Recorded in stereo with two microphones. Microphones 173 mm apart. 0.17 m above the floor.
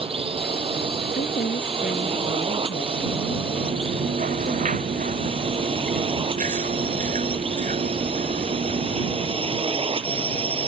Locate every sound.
0.0 s a drone: 30° right (ahead or behind); by 10.7 s 35° right (ahead or behind)
1.1 s a woman speaking: 55° left (ahead or behind)
3.6 s chewing: 45° right (ahead or behind)